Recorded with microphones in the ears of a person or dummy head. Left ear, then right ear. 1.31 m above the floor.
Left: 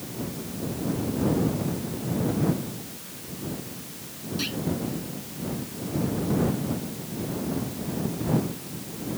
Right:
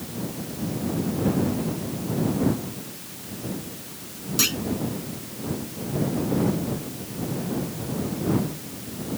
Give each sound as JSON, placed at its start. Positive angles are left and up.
{"t": 4.4, "sound": "a clunk", "side_deg": -45}